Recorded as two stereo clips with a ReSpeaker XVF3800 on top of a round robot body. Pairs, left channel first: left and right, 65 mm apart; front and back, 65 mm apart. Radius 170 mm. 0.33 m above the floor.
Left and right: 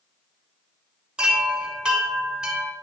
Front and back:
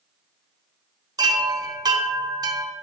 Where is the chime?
165° right, 1.1 m.